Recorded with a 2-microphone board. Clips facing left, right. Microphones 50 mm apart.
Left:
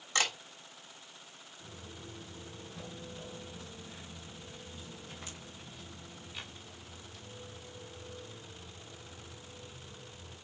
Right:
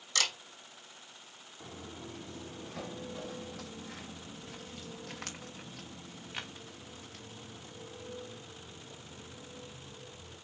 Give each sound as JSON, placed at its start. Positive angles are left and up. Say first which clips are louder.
{"t": 0.1, "sound": "a camera shutter", "louder": "left 2 dB", "side_deg": 25, "distance_m": 3.0}
{"t": 1.6, "sound": "footsteps", "louder": "right 4 dB", "side_deg": -55, "distance_m": 1.7}